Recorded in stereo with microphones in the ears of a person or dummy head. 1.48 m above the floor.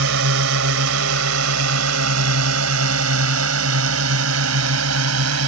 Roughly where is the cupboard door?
No cupboard door in this recording.